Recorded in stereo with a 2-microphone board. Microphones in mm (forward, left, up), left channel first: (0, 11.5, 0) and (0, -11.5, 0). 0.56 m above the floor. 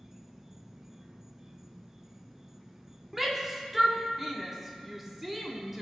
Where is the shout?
10° right (ahead or behind), 1.1 m.